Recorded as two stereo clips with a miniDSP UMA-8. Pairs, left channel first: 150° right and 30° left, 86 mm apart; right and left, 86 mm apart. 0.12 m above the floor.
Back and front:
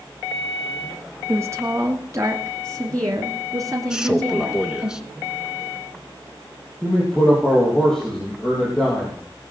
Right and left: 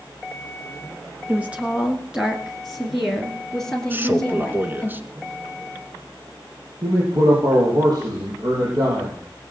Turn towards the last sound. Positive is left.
turn(degrees=125)